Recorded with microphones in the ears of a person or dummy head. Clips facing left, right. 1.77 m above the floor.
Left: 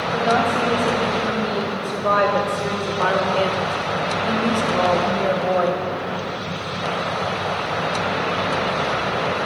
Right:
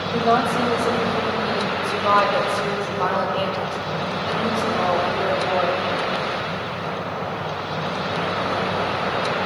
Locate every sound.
0.1 s a woman speaking: 10° left (ahead or behind), 5 m; by 5.8 s 55° left (ahead or behind), 3 m